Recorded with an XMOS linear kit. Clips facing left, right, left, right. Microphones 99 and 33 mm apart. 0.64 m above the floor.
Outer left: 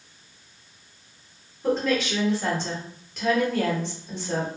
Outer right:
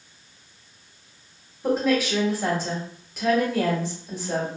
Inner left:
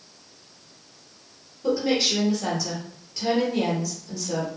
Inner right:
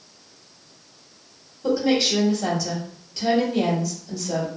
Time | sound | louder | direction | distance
1.6 | a woman speaking | outer right 2 dB, inner right 2 dB | 5° right (ahead or behind) | 1.5 m